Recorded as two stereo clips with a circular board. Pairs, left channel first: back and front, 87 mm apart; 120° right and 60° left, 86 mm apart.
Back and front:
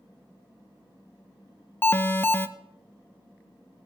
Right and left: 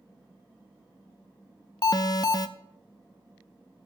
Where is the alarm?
120° right, 0.7 m.